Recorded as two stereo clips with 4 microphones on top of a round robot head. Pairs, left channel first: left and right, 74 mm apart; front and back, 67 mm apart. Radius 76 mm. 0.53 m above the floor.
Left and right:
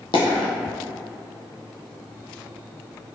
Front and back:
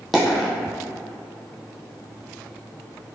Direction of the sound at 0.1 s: 85° left.